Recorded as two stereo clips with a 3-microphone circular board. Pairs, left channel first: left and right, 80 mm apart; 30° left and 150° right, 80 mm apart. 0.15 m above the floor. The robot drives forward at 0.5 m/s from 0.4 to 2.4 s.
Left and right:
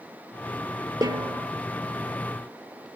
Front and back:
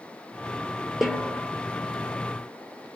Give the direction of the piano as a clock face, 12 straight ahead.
No piano in this recording.